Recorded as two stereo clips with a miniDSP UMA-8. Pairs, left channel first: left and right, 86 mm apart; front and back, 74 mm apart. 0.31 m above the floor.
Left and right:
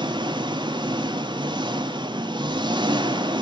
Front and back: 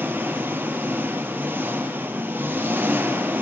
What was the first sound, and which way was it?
An engine running, 110° right.